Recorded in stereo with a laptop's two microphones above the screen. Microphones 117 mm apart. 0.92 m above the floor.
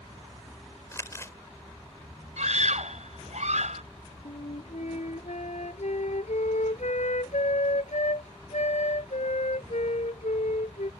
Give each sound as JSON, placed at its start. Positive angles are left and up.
{"t": 0.9, "sound": "crumpling", "side_deg": 25}
{"t": 2.4, "sound": "a scream", "side_deg": -80}
{"t": 4.2, "sound": "a flute", "side_deg": 85}